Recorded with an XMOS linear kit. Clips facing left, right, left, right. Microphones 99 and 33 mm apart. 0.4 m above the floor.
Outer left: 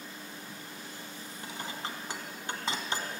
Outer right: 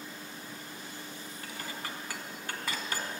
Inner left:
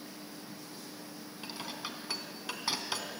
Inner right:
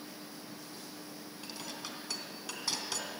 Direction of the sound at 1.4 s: 25° left (ahead or behind).